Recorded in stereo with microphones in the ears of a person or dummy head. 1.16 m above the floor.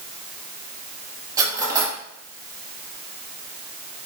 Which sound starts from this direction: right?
Cutlery clinking, at 1.4 s.